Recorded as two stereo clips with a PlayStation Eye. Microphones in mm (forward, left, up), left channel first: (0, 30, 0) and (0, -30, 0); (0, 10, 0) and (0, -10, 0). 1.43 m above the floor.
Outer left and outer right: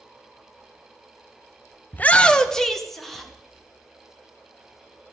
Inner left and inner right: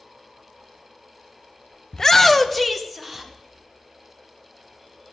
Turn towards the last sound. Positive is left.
turn(degrees=0)  # may be behind; listen again after turning